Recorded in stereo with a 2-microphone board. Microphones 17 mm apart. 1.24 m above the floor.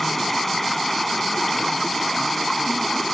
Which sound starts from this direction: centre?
Running water, at 0.0 s.